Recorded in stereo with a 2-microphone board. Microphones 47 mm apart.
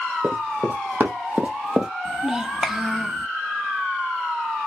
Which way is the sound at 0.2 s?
60° right (ahead or behind).